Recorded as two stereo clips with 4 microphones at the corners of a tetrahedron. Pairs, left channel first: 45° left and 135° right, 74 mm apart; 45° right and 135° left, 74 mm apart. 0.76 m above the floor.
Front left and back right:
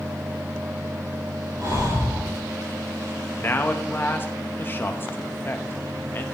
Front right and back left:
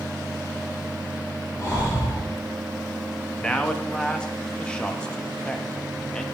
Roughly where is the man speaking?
Ahead.